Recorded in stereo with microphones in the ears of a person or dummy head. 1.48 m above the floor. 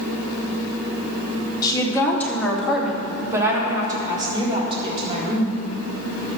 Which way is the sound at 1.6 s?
20° left (ahead or behind).